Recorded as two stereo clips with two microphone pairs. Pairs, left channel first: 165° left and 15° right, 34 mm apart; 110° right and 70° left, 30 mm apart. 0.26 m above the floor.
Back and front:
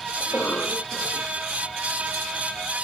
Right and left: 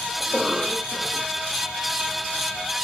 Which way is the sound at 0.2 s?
155° left.